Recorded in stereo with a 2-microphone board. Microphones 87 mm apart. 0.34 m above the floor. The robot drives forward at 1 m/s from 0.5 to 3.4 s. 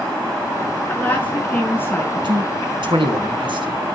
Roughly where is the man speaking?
Right.